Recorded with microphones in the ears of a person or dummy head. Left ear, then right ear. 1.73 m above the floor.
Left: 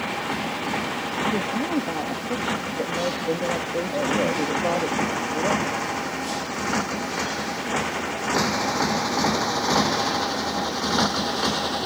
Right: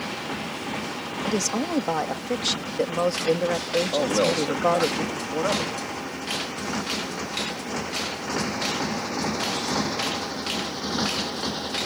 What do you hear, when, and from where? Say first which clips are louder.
0.0 s a motorcycle: left 4 dB; 15° left (ahead or behind); by 11.9 s 20° left (ahead or behind)
1.2 s a woman speaking: right 2 dB; 70° right (ahead or behind)
3.9 s a man speaking: even; 65° right (ahead or behind)